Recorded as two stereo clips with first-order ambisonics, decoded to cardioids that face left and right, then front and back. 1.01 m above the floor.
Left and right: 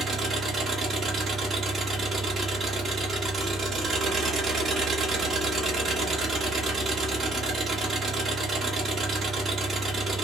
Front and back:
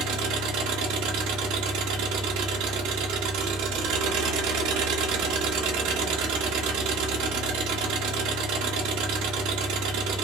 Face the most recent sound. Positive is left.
turn(degrees=-165)